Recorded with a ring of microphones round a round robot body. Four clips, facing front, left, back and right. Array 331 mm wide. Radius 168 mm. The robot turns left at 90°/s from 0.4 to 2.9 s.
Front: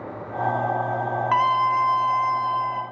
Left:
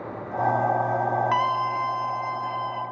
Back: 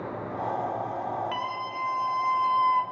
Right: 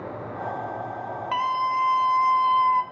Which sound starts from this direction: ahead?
A scream, at 1.3 s.